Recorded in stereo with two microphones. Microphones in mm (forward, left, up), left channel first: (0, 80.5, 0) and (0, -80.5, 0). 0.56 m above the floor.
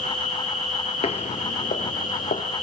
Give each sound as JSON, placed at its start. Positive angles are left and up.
{"t": 0.0, "sound": "an insect", "side_deg": 55, "distance_m": 9.0}
{"t": 1.0, "sound": "footsteps", "side_deg": 40, "distance_m": 0.7}